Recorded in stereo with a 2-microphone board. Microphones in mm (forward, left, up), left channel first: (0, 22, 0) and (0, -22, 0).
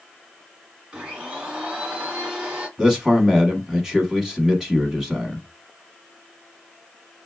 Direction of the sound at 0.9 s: 20° right (ahead or behind).